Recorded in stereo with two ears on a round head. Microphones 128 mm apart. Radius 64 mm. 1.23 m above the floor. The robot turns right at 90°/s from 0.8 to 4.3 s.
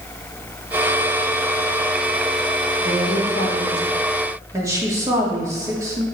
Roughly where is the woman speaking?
Left.